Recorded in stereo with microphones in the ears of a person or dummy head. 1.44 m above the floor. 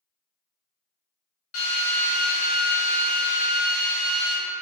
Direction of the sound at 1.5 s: 45° left (ahead or behind).